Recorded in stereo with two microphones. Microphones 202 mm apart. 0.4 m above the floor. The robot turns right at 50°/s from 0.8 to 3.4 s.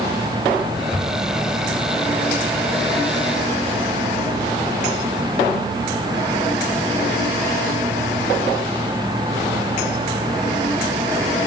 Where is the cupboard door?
10° left (ahead or behind), 1.7 m; by 1.2 s centre (ahead or behind), 1.7 m.